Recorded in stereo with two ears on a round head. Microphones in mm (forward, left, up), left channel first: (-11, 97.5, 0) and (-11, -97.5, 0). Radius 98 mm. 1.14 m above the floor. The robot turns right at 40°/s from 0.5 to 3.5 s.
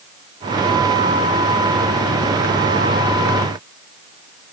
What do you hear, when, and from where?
Only background noise.